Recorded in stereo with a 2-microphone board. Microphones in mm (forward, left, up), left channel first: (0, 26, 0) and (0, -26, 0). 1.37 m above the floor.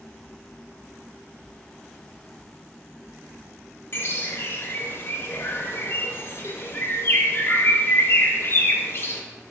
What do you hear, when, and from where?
3.9 s a bird: 45° left (ahead or behind), 0.9 m